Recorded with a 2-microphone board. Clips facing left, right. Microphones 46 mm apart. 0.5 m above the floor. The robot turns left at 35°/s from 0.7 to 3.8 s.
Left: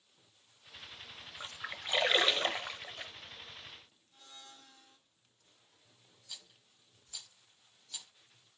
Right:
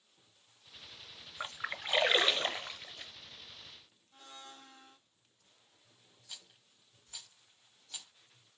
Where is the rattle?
20° right (ahead or behind), 2 m.